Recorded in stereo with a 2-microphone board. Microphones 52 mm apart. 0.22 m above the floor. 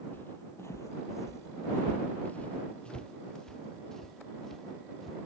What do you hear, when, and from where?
0.1 s footsteps: 40° left (ahead or behind); by 5.2 s 5° left (ahead or behind)